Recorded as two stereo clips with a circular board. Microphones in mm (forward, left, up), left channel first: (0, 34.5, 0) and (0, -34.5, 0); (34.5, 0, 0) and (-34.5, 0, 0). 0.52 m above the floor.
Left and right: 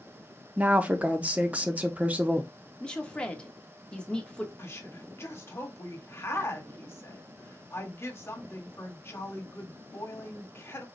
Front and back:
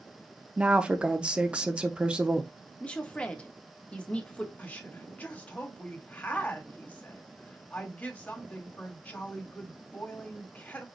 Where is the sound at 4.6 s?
60° left, 1.6 m.